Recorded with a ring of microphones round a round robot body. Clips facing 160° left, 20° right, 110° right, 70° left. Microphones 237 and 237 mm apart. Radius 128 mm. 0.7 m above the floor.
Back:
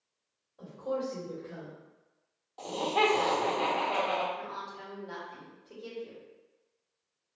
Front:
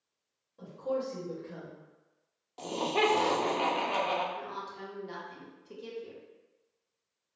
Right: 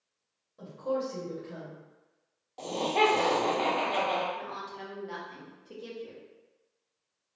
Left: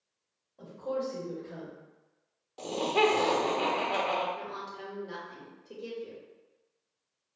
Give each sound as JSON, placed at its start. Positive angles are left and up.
{"t": 0.6, "sound": "a woman speaking", "azimuth_deg": -55, "distance_m": 1.7}
{"t": 2.6, "sound": "laughter", "azimuth_deg": -5, "distance_m": 0.9}
{"t": 4.3, "sound": "a woman speaking", "azimuth_deg": -20, "distance_m": 1.2}